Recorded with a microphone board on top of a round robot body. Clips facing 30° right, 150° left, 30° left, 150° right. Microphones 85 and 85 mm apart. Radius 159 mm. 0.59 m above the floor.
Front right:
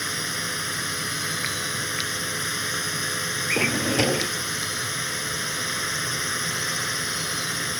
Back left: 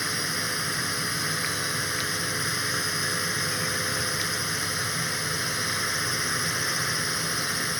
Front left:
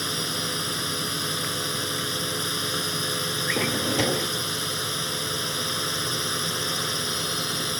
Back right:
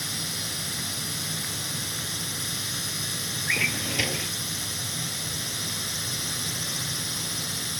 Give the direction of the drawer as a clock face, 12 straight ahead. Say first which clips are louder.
Front right 5 dB, front left 3 dB; 1 o'clock.